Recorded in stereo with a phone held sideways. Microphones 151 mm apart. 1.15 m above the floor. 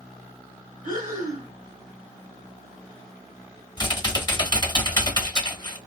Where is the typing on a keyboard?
30° left (ahead or behind), 0.8 m.